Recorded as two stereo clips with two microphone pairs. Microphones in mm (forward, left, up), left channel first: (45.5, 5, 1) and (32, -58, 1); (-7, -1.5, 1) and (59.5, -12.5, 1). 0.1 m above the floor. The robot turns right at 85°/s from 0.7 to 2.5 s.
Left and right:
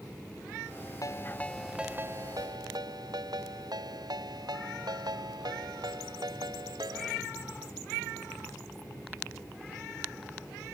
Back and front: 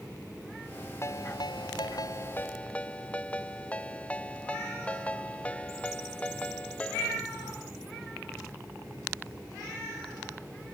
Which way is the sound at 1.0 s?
115° left.